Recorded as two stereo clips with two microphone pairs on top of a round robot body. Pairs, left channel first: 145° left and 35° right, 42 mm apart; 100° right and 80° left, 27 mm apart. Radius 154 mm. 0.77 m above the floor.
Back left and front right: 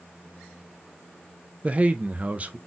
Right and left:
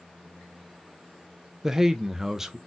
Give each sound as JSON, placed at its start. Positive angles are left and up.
{"t": 1.6, "sound": "a man speaking", "azimuth_deg": 0, "distance_m": 0.5}